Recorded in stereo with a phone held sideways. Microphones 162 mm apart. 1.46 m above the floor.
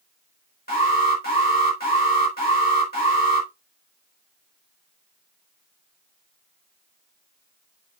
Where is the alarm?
75° left (ahead or behind), 4 m.